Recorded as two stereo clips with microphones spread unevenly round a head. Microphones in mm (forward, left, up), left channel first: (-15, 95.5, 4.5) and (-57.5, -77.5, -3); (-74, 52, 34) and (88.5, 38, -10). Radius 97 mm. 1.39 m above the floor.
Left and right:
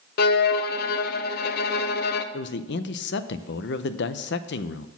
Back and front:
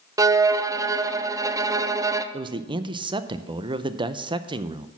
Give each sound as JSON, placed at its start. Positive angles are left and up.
{"t": 0.2, "sound": "a violin", "azimuth_deg": 50, "distance_m": 0.6}
{"t": 2.3, "sound": "a man speaking", "azimuth_deg": 65, "distance_m": 0.6}